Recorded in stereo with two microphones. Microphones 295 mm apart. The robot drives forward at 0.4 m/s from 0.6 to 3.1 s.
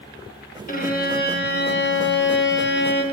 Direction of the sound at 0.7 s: 30° left (ahead or behind).